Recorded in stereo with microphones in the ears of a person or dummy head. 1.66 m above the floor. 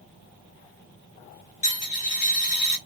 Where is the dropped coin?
45° left (ahead or behind), 1.6 m.